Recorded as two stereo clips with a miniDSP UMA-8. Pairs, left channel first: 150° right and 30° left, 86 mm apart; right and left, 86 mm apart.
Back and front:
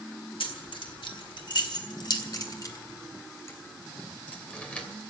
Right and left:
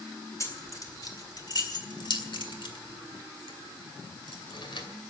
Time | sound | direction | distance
0.4 | keys jangling | 140° right | 2 m